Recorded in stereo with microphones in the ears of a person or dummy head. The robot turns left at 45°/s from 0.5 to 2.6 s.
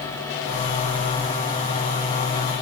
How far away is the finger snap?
No finger snap in this recording.